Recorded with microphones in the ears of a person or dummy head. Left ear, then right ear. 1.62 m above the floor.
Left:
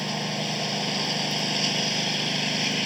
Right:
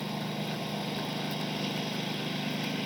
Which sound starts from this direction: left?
A lawn mower, at 0.0 s.